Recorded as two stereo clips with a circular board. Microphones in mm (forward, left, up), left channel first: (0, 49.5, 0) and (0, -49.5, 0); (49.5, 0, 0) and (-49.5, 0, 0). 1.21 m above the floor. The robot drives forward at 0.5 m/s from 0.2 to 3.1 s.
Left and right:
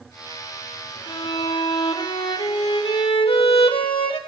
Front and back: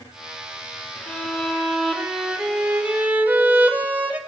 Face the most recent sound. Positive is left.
turn(degrees=105)